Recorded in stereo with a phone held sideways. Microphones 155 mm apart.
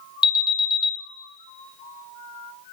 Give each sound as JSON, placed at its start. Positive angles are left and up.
{"t": 0.2, "sound": "an alarm", "side_deg": 30, "distance_m": 0.8}